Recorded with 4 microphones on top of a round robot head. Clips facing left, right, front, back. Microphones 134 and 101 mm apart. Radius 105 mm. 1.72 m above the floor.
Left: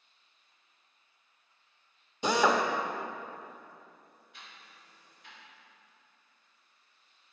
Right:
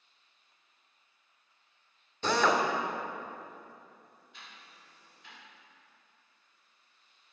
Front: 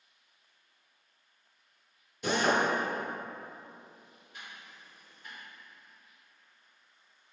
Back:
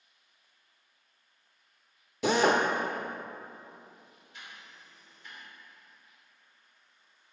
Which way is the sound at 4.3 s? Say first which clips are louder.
Even, front 1 dB; 65° right.